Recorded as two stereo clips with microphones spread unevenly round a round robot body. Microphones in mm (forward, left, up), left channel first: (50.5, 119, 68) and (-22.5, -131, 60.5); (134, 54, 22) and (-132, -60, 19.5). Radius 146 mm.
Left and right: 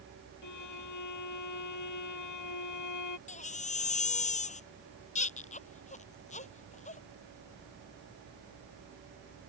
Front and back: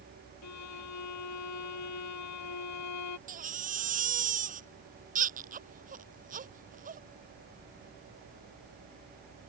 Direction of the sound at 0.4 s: 60° left.